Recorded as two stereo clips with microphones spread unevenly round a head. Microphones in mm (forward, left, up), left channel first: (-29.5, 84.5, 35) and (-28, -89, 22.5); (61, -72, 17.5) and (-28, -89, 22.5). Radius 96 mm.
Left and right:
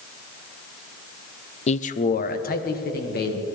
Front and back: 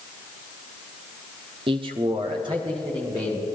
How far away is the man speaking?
About 0.5 m.